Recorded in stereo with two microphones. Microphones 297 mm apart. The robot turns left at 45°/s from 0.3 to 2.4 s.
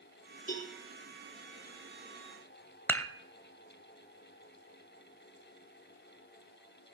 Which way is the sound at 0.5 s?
30° left (ahead or behind).